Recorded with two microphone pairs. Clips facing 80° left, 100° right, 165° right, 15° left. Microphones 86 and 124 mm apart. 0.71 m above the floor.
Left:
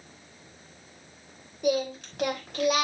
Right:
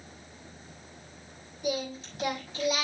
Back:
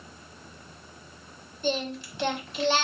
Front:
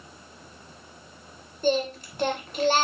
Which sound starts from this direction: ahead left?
Singing, at 1.6 s.